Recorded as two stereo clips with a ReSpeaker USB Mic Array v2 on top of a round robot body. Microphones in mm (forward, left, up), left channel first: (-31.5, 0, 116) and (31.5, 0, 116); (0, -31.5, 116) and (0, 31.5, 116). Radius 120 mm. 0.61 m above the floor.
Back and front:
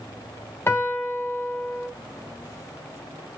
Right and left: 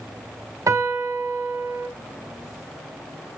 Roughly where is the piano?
Behind left.